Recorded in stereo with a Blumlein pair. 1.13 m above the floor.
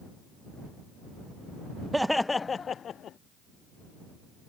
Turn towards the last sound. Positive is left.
turn(degrees=30)